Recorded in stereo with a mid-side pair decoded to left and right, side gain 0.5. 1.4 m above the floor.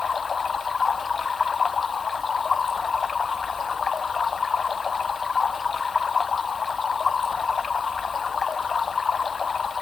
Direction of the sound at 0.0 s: 40° left.